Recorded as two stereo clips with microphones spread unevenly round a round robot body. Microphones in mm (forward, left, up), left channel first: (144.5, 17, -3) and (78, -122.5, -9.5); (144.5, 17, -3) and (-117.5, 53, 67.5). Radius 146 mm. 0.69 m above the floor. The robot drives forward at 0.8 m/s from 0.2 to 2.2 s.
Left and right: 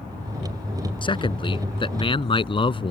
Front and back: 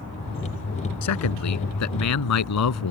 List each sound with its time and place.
1.0 s a man speaking: 10° left